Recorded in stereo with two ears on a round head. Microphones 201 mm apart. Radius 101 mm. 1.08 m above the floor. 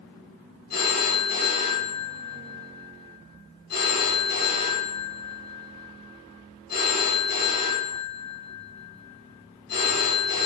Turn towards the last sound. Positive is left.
turn(degrees=45)  # may be behind; listen again after turning